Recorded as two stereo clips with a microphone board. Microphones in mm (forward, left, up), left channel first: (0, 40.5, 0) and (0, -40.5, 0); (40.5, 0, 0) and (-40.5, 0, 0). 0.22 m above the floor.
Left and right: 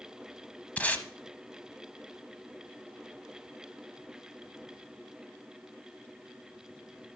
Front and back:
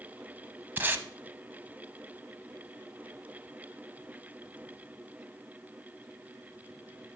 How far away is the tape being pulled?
About 0.8 m.